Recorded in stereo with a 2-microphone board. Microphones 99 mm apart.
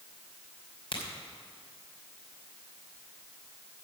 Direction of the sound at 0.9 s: 60° left (ahead or behind).